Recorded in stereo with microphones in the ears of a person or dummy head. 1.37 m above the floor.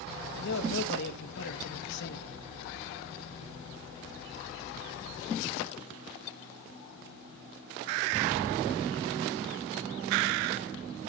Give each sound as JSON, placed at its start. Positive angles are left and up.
{"t": 0.3, "sound": "a man speaking", "side_deg": 70, "distance_m": 1.5}